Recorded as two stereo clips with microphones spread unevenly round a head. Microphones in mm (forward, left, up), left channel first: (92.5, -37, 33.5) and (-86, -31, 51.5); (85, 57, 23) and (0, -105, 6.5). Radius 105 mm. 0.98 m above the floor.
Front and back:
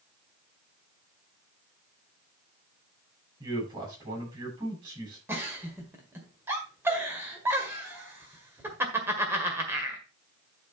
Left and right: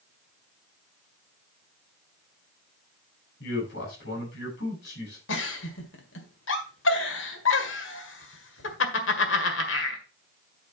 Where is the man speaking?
110° left, 6.5 m.